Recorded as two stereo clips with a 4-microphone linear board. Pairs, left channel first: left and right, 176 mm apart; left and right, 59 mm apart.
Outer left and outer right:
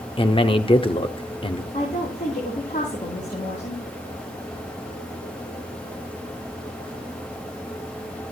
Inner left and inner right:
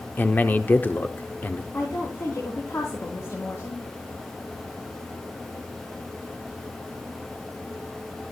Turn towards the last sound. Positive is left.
turn(degrees=45)  # may be behind; listen again after turning